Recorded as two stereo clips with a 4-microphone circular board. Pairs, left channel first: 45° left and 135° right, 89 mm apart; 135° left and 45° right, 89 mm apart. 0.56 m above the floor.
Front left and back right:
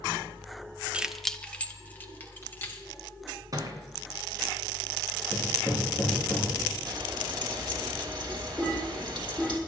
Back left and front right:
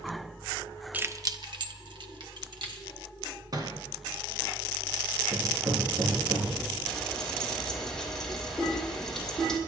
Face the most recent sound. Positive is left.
turn(degrees=-140)